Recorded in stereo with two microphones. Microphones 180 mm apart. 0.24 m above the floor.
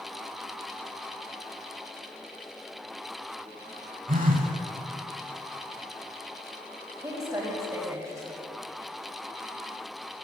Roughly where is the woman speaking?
Centre.